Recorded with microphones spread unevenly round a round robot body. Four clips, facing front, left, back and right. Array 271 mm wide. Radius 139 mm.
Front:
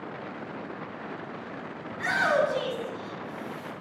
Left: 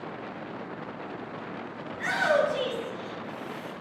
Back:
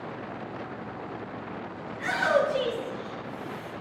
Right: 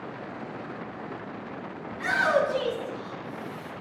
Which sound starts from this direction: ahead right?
A shout, at 1.9 s.